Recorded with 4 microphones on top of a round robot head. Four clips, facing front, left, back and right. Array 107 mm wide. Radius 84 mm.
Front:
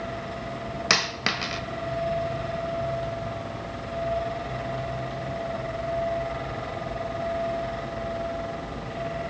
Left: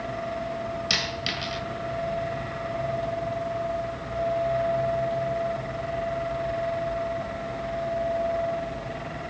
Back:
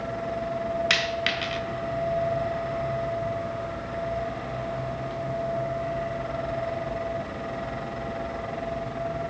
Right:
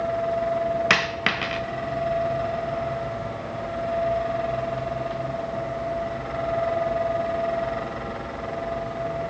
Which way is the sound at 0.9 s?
65° right.